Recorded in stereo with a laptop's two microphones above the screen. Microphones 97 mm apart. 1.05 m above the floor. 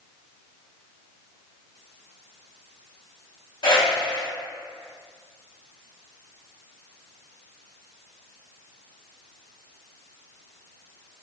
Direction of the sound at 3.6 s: 65° left (ahead or behind).